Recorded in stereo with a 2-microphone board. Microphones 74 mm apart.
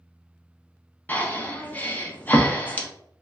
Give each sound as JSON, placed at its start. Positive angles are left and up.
{"t": 1.1, "sound": "breathing", "side_deg": 25, "distance_m": 0.5}